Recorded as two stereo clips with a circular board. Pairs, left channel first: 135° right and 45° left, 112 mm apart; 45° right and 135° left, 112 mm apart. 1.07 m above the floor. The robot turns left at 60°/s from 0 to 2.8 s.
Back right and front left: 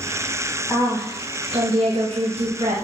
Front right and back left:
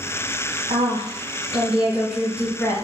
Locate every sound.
0.7 s a woman speaking: 140° left, 1.1 m; by 2.8 s 15° left, 1.1 m